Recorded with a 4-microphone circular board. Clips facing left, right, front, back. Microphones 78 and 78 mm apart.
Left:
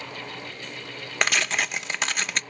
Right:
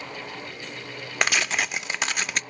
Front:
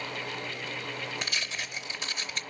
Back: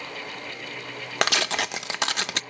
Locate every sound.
1.2 s tearing paper: straight behind, 0.5 m